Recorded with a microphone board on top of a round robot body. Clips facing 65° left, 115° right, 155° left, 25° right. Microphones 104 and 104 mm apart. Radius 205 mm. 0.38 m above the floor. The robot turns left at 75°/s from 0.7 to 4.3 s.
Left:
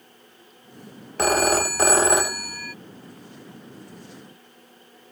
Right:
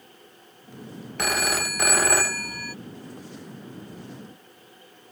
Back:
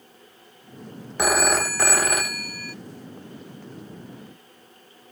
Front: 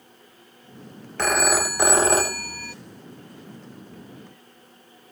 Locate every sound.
1.2 s a phone ringing: 85° left; by 2.8 s 30° right